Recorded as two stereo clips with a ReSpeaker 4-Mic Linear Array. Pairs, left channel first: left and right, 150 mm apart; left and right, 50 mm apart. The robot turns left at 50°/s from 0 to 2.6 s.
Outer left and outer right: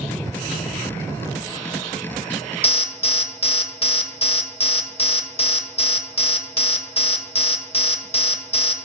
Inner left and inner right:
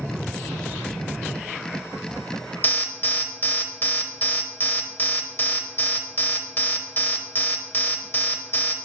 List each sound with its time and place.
2.6 s an alarm: 40° left (ahead or behind), 0.7 m